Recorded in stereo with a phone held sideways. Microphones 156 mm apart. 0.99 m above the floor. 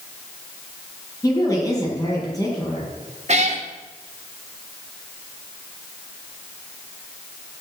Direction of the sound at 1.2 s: 25° left (ahead or behind).